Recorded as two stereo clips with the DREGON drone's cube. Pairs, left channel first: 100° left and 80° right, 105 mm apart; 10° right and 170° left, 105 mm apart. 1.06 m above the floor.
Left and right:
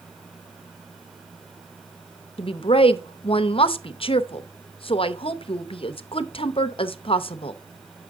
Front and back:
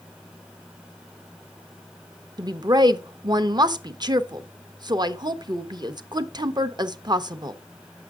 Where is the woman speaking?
125° left, 0.7 m.